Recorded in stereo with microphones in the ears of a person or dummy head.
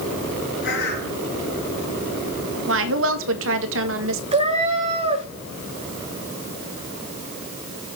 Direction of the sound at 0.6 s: 60° left (ahead or behind).